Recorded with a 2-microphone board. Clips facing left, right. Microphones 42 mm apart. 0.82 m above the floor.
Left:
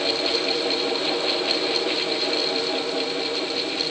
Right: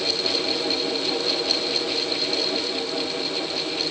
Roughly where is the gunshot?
No gunshot in this recording.